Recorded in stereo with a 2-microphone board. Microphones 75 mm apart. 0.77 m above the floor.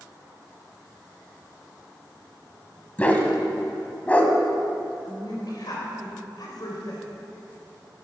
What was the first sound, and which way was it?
A dog barking, 20° left (ahead or behind).